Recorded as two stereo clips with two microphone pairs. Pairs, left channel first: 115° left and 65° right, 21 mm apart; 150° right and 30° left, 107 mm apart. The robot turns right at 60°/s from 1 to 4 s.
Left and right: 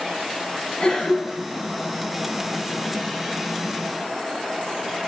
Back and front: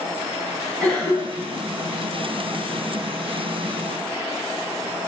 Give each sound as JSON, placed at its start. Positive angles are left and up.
{"t": 0.8, "sound": "a cough", "azimuth_deg": 145, "distance_m": 1.1}